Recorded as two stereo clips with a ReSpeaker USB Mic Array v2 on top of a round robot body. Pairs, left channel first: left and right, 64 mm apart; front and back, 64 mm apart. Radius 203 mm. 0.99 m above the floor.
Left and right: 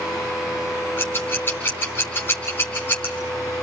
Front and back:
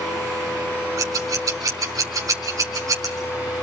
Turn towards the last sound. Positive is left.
turn(degrees=145)